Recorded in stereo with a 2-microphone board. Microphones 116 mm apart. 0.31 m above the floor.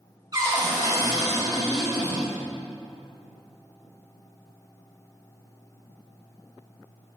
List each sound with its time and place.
0.3 s a cupboard door: 35° right (ahead or behind), 1.7 m